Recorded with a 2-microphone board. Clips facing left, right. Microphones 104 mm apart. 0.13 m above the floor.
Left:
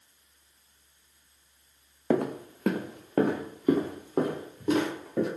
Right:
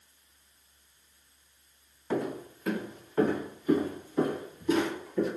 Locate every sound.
2.1 s footsteps: 60° left (ahead or behind), 0.5 m; by 5.3 s 75° left (ahead or behind), 2.5 m